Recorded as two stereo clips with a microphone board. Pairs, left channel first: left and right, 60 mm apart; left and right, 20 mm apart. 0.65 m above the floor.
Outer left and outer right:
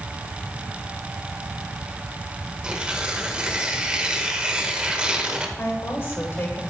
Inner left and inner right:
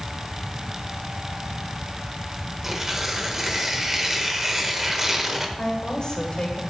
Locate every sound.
2.6 s tearing paper: 20° right (ahead or behind), 0.8 m
5.6 s a woman speaking: 40° left (ahead or behind), 1.9 m